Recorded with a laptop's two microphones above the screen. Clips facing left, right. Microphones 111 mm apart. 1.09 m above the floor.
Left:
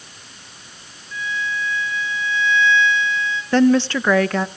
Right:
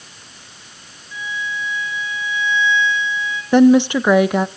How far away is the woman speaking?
About 1.1 m.